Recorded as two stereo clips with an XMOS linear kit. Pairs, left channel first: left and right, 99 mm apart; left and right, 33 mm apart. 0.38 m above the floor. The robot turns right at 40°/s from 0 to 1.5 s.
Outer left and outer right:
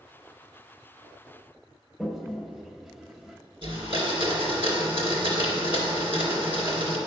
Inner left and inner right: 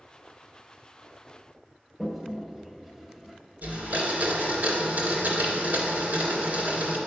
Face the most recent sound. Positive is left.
turn(degrees=-65)  # may be behind; listen again after turning